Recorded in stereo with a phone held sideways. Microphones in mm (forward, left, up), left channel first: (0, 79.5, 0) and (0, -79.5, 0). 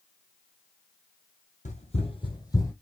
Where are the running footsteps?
50° left (ahead or behind), 1.4 m; by 2.7 s 20° left (ahead or behind), 1.6 m.